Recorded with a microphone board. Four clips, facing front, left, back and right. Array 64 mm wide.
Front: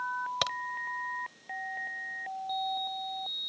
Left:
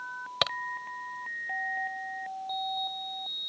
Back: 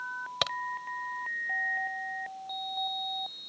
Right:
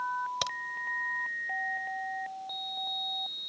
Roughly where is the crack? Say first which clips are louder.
Left 4 dB, even; left.